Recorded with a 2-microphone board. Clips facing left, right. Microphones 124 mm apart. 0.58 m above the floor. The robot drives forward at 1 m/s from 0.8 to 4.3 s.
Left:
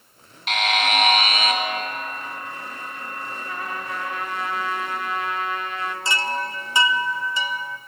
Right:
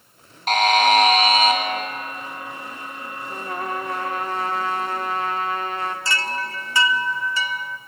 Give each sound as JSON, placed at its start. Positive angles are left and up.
{"t": 0.5, "sound": "a buzzer", "side_deg": -45, "distance_m": 2.5}
{"t": 3.3, "sound": "a trumpet", "side_deg": -50, "distance_m": 1.4}
{"t": 6.0, "sound": "a chime", "side_deg": 20, "distance_m": 0.8}